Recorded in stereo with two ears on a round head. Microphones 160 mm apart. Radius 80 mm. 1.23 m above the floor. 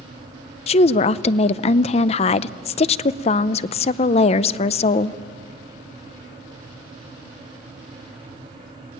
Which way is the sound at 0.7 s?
35° left (ahead or behind).